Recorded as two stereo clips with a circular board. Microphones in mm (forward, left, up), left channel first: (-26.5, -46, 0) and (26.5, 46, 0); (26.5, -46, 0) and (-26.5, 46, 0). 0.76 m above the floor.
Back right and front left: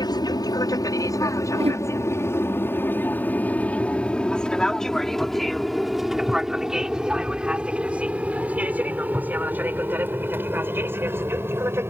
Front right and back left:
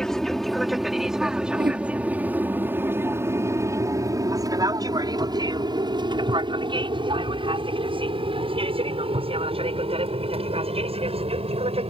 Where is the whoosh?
75° left.